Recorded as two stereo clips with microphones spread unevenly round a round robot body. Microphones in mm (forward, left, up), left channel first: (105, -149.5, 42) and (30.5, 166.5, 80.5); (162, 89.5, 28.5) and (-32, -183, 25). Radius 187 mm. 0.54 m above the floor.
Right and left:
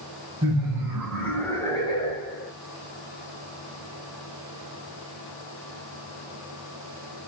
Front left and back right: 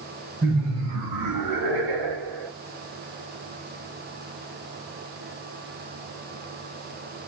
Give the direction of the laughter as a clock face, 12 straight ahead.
6 o'clock.